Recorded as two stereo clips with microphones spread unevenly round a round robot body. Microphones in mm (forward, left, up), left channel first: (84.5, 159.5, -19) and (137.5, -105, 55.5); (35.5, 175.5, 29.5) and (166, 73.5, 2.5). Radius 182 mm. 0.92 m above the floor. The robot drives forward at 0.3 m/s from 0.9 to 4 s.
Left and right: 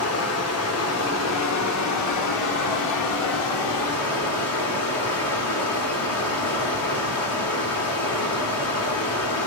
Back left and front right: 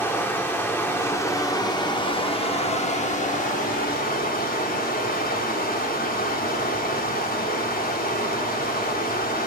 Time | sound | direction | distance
0.0 | running water | 65° left | 1.2 m